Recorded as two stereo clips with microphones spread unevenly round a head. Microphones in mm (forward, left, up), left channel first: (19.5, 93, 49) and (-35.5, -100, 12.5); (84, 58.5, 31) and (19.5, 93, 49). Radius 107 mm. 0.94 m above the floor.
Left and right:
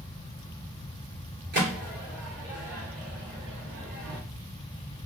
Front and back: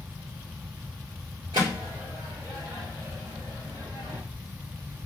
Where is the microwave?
150° right, 2 m.